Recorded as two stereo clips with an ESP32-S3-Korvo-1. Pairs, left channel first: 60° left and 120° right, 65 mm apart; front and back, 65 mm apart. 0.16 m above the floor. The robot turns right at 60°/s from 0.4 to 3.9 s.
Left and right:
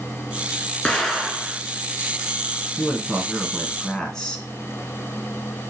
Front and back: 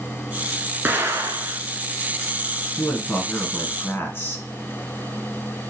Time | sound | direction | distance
0.8 | an explosion | 130° left | 0.7 m
2.8 | a man speaking | 80° right | 1.4 m